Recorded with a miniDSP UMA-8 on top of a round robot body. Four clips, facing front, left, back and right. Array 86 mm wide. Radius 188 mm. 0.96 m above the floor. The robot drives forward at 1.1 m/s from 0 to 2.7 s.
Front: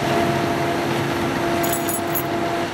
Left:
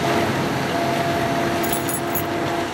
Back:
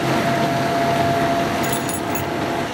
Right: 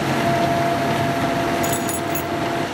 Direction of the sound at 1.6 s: 145° right.